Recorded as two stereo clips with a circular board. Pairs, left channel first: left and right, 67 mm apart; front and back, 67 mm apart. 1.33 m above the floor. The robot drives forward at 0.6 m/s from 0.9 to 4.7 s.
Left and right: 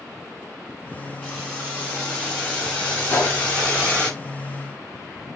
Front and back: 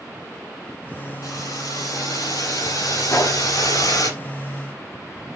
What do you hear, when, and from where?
1.2 s boiling: 15° left, 9.5 m; by 4.1 s 20° left, 7.5 m
3.1 s a gunshot: 30° left, 3.5 m; by 3.4 s 35° left, 3.5 m